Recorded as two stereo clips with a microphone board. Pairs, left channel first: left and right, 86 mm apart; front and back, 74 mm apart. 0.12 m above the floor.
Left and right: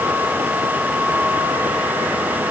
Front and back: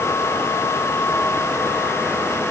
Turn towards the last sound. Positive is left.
No sound to turn to.